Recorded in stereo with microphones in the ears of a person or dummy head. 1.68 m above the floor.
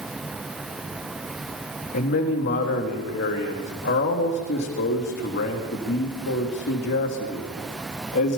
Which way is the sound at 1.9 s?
55° left (ahead or behind).